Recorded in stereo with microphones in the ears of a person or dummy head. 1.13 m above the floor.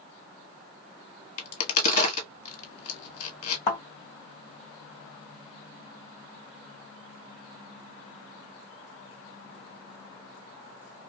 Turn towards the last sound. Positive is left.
turn(degrees=40)  # may be behind; listen again after turning